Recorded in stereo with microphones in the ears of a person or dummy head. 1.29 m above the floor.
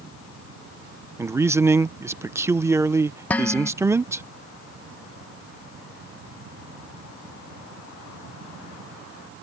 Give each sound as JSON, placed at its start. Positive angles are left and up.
{"t": 1.2, "sound": "a man speaking", "side_deg": -10}
{"t": 3.3, "sound": "dishes clattering", "side_deg": 10}